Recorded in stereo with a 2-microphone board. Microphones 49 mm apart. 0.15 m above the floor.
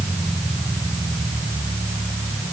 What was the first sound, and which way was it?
Only background noise.